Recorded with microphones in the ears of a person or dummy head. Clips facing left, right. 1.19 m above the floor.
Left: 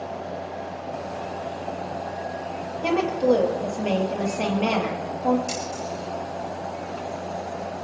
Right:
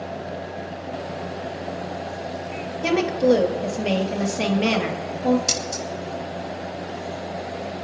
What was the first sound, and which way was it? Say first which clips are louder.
A woman speaking: right 2 dB; 25° right (ahead or behind).